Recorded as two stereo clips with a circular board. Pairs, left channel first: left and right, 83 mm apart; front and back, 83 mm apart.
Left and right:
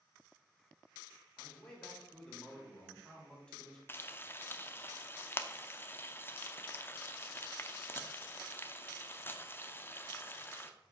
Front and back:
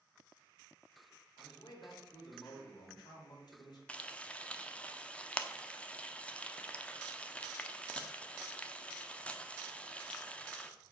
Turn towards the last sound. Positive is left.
turn(degrees=55)